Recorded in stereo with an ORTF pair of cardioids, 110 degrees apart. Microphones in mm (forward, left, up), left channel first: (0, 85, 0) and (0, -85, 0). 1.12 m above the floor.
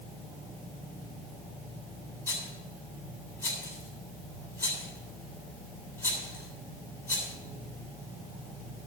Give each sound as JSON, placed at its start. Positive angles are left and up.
{"t": 2.3, "sound": "a rattle", "azimuth_deg": 20, "distance_m": 7.5}